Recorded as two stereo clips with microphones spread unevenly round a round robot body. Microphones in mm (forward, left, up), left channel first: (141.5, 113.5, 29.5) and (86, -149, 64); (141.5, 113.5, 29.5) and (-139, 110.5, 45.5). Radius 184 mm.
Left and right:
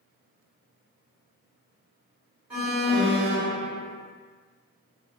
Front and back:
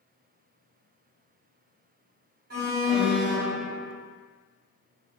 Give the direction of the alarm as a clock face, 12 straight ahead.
6 o'clock.